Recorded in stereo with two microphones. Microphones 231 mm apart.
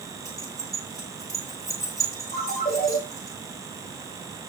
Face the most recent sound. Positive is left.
turn(degrees=35)  # may be behind; listen again after turning